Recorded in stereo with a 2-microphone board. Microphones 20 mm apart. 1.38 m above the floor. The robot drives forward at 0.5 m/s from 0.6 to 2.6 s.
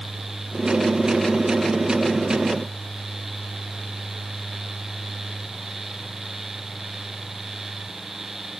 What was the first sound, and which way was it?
Only background noise.